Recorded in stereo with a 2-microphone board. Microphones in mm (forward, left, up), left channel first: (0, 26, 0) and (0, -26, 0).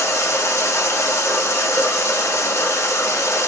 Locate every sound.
0.0 s running water: 60° left (ahead or behind), 1.2 m